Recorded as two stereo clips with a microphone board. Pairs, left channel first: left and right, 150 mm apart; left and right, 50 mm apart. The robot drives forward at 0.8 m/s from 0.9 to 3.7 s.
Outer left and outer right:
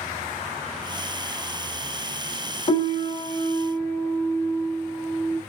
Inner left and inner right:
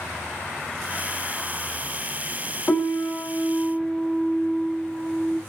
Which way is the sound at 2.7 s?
35° left (ahead or behind).